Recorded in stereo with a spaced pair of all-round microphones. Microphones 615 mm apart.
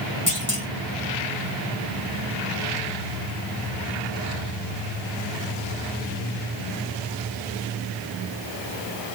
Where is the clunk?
10° left (ahead or behind), 2.0 m.